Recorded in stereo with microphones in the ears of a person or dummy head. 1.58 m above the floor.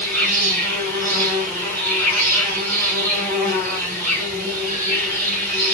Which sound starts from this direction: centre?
An insect, at 0.0 s.